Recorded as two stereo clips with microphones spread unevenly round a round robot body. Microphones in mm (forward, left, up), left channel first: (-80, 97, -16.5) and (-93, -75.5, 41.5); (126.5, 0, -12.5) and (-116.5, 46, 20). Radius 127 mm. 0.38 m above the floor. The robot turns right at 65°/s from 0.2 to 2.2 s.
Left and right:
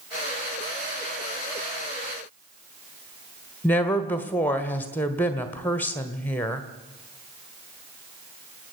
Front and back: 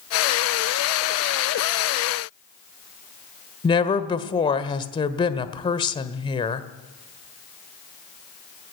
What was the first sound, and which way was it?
A woman speaking, 40° left.